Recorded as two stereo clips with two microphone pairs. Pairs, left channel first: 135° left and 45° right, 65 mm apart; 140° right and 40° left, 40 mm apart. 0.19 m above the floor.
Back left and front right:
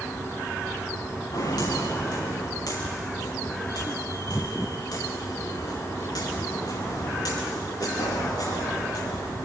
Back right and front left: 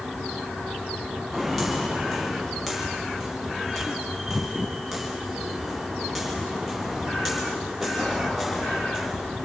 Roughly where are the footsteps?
Behind left.